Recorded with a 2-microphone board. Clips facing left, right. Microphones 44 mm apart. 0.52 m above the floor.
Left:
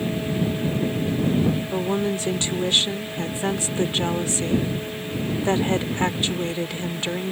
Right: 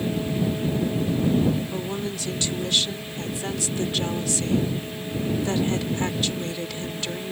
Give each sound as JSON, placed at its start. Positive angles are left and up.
{"t": 1.7, "sound": "a woman speaking", "side_deg": 30}